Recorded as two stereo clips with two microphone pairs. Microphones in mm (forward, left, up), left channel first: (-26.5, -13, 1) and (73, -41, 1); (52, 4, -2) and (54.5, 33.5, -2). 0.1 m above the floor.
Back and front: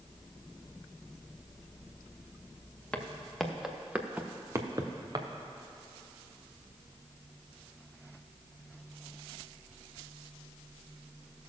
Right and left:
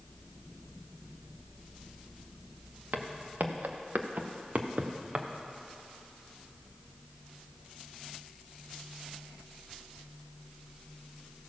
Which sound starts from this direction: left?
Footsteps, at 2.9 s.